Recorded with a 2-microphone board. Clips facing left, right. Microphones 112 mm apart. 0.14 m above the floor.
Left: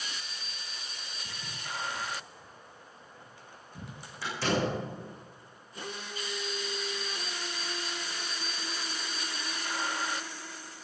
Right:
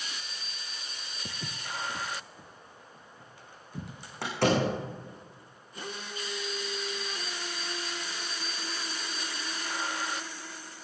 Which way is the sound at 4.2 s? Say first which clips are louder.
Right 4 dB; 65° right (ahead or behind).